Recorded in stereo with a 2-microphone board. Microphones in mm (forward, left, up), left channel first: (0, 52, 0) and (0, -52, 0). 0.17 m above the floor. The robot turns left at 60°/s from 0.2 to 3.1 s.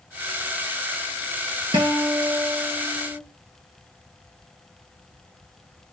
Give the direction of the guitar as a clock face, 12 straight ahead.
4 o'clock.